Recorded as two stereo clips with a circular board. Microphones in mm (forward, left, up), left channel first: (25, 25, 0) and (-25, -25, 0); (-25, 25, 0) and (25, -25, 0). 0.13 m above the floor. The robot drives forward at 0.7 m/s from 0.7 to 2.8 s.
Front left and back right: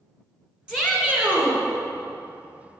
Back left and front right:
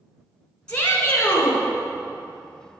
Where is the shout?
165° left, 1.1 m; by 1.6 s 175° left, 1.5 m.